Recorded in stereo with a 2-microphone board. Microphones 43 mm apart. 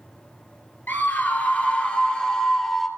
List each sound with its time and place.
0.9 s a scream: 50° left (ahead or behind), 2 m; by 2.9 s 5° left (ahead or behind), 2.5 m